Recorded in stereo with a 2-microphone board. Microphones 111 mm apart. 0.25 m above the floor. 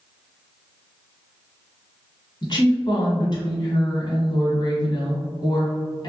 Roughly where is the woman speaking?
Left.